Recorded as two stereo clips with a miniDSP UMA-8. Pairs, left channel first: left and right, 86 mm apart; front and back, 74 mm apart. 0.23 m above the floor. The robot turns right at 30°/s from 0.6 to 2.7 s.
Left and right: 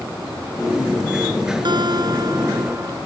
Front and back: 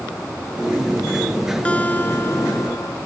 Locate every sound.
1.6 s a guitar: 70° right; by 3.0 s 40° right